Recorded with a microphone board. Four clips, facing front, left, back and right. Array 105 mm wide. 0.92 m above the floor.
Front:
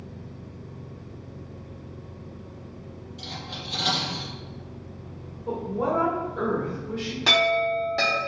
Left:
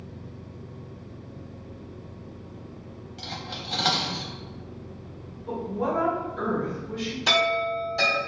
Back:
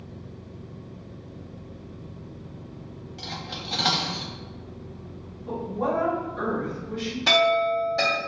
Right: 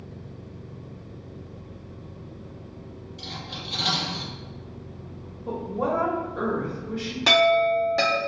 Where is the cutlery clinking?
135° left, 0.7 m.